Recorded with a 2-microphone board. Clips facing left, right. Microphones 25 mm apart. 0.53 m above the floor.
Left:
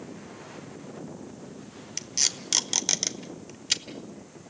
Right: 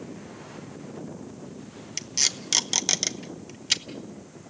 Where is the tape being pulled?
5° right (ahead or behind), 1.0 m.